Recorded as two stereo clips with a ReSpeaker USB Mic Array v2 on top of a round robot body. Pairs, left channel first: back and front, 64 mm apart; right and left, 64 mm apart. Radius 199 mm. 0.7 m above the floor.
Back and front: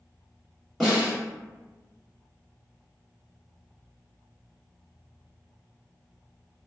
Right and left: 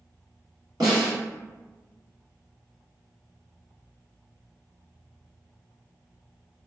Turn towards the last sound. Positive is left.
turn(degrees=90)